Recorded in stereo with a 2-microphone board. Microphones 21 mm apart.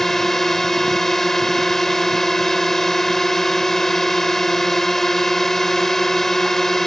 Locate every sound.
0.0 s a drone: 20° left (ahead or behind)